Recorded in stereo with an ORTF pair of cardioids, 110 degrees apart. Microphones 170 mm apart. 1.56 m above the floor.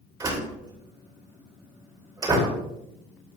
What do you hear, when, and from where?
0.2 s a door slam: 20° right, 2.5 m